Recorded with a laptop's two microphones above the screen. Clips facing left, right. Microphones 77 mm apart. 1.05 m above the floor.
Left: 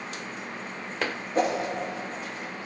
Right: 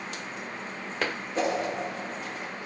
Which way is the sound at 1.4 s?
45° left (ahead or behind).